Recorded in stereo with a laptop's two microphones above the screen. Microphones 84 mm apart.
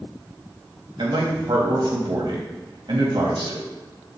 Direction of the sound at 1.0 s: 70° right (ahead or behind).